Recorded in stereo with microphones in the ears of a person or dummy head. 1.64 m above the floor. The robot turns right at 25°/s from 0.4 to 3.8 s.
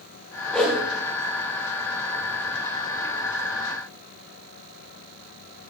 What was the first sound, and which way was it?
A whoosh, 5° left (ahead or behind).